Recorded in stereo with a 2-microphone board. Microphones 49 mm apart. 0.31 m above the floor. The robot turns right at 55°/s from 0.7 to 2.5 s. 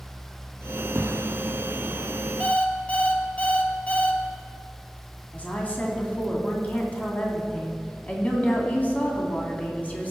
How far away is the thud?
About 1.3 m.